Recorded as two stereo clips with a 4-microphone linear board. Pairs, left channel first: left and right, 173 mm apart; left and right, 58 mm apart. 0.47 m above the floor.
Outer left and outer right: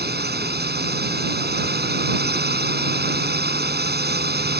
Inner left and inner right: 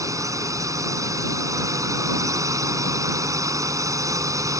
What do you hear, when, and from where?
0.0 s a drone: 75° right (ahead or behind)